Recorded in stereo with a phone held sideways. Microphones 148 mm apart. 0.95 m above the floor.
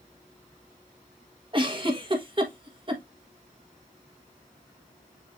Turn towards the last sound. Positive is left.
turn(degrees=-35)  # may be behind; listen again after turning